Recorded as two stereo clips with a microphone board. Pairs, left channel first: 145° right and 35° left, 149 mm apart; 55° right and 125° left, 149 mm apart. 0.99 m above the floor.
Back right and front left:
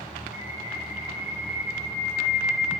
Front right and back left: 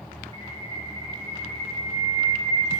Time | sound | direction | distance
0.3 | a bird | 115° right | 3.5 m